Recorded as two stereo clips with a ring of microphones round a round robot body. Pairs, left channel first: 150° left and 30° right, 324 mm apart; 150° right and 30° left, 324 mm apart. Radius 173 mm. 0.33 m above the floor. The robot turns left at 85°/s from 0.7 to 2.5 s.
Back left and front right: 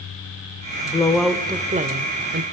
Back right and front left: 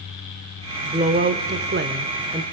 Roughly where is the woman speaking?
Left.